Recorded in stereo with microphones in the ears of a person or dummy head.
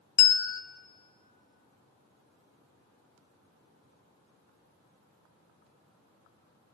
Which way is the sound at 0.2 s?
75° left (ahead or behind).